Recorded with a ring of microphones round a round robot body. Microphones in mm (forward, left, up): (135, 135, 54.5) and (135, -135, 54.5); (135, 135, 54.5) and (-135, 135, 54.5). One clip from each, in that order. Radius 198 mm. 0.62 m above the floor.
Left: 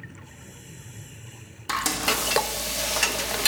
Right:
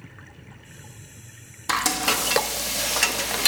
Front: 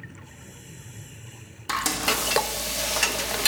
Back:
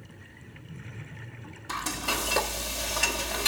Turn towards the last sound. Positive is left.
turn(degrees=-40)